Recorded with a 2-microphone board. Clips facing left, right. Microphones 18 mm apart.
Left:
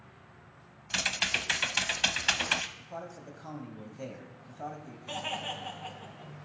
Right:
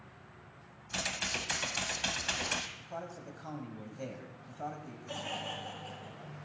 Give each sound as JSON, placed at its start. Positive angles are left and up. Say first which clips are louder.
{"t": 0.9, "sound": "typing on a keyboard", "louder": "left 6 dB", "side_deg": 35, "distance_m": 0.6}
{"t": 2.8, "sound": "a man speaking", "louder": "left 1 dB", "side_deg": 0, "distance_m": 1.1}
{"t": 5.1, "sound": "laughter", "louder": "left 4 dB", "side_deg": 50, "distance_m": 2.5}